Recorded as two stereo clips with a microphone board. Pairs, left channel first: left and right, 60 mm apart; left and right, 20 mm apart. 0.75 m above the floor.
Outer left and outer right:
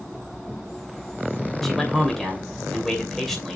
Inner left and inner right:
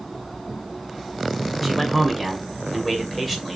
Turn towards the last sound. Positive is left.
turn(degrees=5)  # may be behind; listen again after turning